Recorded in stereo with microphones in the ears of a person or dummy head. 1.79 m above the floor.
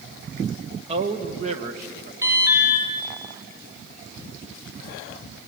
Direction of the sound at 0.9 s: 35° right (ahead or behind).